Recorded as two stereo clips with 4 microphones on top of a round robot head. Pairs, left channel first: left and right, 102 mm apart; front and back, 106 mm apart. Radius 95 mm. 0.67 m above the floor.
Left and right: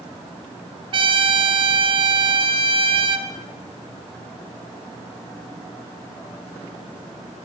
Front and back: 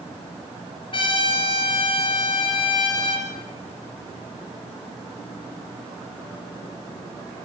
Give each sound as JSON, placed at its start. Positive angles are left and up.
{"t": 0.9, "sound": "a trumpet", "azimuth_deg": -50, "distance_m": 3.0}